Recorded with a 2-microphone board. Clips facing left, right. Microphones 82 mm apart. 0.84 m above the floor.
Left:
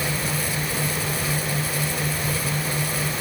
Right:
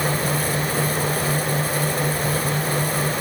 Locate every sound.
Only background noise.